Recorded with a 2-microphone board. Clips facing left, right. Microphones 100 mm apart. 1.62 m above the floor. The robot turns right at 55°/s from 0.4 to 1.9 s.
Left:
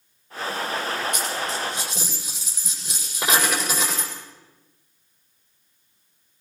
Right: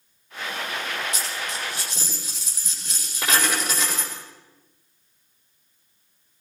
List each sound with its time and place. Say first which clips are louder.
1.1 s a dropped coin: left 4 dB; 125° left, 7 m; by 4.1 s 165° left, 7 m